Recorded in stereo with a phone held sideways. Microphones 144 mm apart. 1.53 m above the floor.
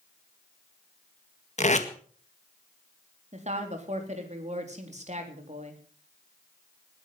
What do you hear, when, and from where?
1.6 s tape being pulled: 50° left (ahead or behind), 1.8 m
3.3 s a woman speaking: 50° right (ahead or behind), 3.5 m